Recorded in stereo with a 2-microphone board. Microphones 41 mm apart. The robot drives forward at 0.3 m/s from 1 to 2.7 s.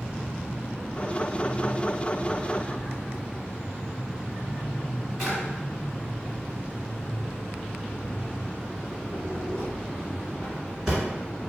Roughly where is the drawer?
Centre.